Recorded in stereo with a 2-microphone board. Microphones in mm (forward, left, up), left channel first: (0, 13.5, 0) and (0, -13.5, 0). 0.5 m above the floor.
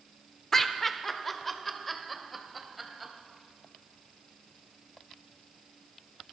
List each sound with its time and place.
0.5 s laughter: 15° left (ahead or behind), 1.1 m; by 3.1 s centre (ahead or behind), 2.5 m